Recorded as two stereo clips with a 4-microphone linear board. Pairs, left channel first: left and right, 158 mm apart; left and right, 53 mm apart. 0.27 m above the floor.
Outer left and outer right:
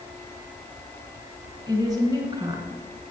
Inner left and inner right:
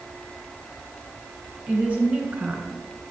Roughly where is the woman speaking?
Right.